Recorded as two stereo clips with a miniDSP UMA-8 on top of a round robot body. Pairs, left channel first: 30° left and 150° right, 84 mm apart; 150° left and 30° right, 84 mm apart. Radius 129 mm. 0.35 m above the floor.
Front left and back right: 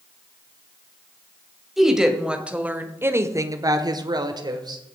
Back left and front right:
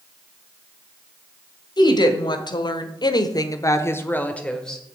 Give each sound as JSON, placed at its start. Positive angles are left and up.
{"t": 1.8, "sound": "a woman speaking", "azimuth_deg": 125, "distance_m": 2.5}